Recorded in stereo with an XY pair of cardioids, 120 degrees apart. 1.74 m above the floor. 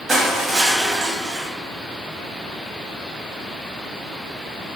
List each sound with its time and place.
0.1 s crushing: 35° right, 1.0 m